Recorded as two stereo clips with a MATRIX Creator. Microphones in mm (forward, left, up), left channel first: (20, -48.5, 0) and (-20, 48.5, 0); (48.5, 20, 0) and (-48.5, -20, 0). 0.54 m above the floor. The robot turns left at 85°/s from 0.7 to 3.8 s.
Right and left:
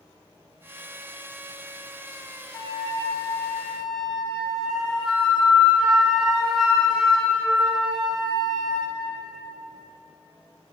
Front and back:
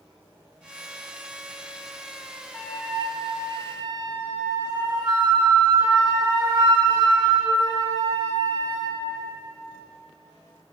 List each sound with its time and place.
2.5 s a flute: 50° right, 0.7 m; by 9.0 s 155° right, 0.7 m